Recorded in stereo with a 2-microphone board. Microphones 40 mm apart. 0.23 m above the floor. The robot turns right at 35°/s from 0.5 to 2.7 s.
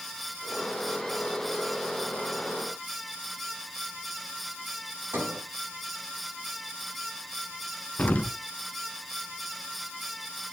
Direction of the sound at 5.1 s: 60° right (ahead or behind).